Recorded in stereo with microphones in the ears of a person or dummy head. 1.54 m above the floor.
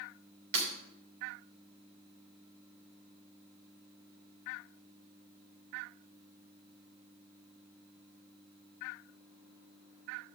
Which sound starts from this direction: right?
Breaking glass, at 0.5 s.